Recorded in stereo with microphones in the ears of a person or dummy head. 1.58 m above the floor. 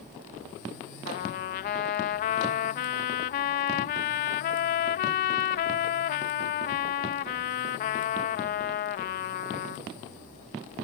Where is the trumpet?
35° left (ahead or behind).